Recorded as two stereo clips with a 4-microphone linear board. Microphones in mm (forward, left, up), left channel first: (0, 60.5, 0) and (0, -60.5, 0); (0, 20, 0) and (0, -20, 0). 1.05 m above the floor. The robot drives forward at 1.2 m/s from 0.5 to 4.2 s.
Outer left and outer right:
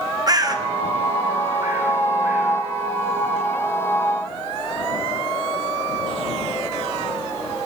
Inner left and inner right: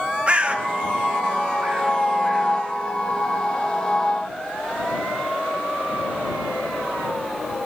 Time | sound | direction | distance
0.3 | a bird | 35° right (ahead or behind) | 0.7 m